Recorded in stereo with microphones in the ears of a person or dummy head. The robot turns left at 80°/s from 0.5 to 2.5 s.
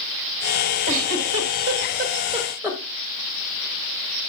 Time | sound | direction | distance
0.9 | a giggle | 40° right (ahead or behind) | 1.9 m